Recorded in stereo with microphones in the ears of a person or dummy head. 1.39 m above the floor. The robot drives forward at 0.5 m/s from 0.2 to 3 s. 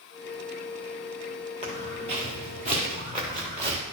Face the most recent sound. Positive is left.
turn(degrees=-30)  # may be behind; listen again after turning